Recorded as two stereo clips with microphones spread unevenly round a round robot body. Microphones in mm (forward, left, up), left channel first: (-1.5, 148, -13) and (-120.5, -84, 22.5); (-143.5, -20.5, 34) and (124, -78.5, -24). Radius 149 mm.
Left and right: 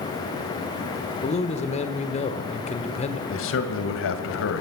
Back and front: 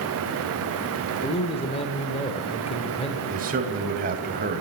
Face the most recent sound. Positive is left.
turn(degrees=35)